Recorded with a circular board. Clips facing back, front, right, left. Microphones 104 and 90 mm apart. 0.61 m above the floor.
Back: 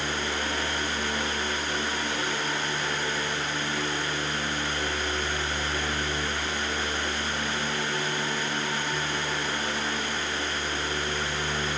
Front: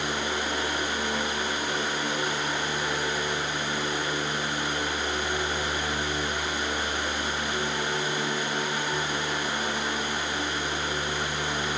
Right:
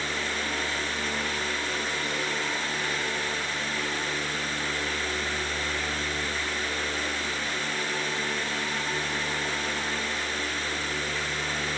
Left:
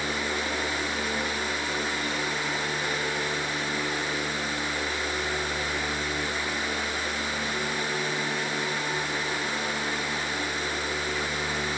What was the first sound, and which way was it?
Only background noise.